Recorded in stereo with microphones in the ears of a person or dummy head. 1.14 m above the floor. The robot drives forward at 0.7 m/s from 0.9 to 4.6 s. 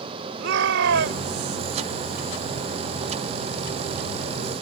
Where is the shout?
70° right (ahead or behind); by 1.6 s 65° right (ahead or behind).